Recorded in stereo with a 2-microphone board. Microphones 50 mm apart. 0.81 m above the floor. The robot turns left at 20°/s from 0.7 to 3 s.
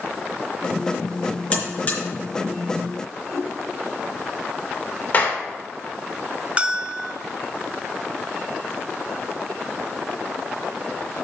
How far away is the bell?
About 0.6 m.